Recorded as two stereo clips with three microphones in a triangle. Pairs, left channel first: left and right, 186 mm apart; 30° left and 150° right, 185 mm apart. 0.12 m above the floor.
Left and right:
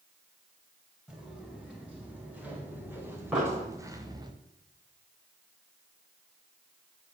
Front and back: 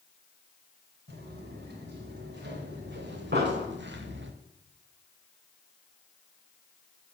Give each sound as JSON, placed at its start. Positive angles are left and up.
{"t": 1.1, "sound": "footsteps", "azimuth_deg": -175, "distance_m": 4.5}
{"t": 3.3, "sound": "an explosion", "azimuth_deg": -175, "distance_m": 4.5}